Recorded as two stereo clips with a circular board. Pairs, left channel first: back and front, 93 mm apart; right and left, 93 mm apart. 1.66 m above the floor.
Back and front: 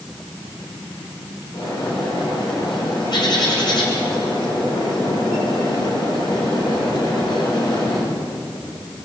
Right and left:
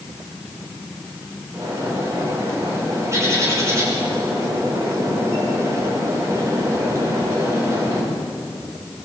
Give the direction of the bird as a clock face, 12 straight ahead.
7 o'clock.